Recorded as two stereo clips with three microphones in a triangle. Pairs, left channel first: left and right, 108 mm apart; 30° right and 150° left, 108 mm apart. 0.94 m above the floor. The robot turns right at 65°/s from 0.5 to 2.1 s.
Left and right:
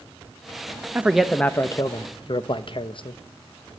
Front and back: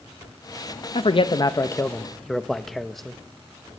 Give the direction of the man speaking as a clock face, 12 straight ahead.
1 o'clock.